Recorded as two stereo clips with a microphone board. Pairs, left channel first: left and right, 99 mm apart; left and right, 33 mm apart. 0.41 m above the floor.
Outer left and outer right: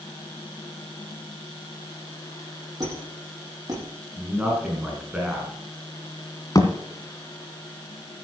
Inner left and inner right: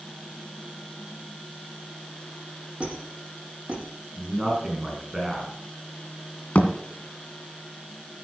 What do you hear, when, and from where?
2.8 s a squeak: 35° right (ahead or behind), 8 m
4.2 s a man speaking: 10° right (ahead or behind), 5 m
6.5 s a thud: 40° left (ahead or behind), 1.9 m